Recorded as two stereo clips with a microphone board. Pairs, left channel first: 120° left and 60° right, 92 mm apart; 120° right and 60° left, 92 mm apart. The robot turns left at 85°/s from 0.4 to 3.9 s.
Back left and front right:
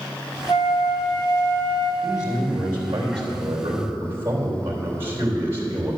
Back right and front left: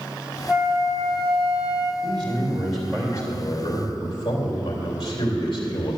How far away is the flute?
About 1.3 m.